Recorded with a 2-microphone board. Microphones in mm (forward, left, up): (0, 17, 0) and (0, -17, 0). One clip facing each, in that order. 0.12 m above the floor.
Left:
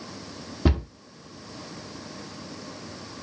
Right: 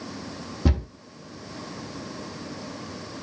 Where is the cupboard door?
20° left (ahead or behind), 0.7 m.